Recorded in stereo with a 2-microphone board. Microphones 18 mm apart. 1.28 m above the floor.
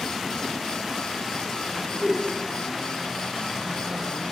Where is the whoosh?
50° right (ahead or behind), 6 m.